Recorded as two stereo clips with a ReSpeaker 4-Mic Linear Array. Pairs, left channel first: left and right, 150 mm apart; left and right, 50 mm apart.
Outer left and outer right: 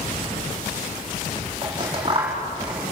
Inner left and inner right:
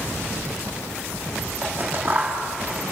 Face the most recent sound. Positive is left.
turn(degrees=-30)  # may be behind; listen again after turning